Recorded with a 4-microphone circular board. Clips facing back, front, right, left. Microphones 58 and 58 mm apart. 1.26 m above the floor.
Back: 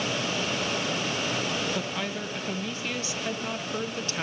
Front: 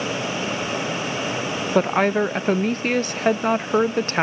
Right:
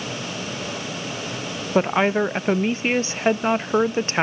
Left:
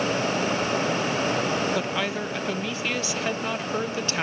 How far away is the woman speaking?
About 0.6 m.